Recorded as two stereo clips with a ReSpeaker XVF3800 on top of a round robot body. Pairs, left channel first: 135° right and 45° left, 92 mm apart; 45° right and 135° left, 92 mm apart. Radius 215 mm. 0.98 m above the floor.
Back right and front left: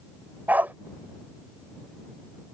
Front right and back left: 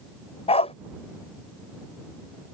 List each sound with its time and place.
0.5 s a dog barking: 30° right